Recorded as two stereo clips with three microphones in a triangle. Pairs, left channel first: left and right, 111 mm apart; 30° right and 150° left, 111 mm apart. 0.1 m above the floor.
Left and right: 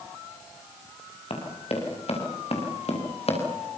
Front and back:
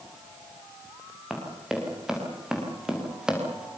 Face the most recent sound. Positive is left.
turn(degrees=70)